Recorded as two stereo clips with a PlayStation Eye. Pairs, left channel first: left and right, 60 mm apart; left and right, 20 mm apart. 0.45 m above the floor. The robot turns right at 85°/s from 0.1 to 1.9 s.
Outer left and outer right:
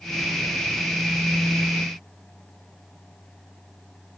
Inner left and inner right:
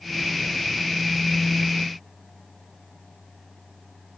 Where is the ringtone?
I don't hear a ringtone.